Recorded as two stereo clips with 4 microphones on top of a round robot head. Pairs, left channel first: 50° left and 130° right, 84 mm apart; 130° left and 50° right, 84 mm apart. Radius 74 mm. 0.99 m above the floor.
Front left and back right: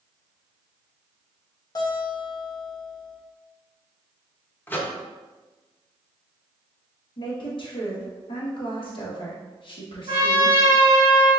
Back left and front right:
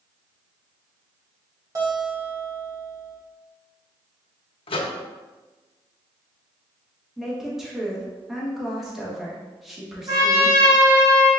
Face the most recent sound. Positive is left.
turn(degrees=-80)